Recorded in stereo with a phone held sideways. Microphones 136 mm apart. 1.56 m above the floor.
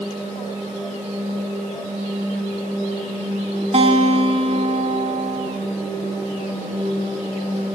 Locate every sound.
3.7 s a guitar: 55° right (ahead or behind), 3.5 m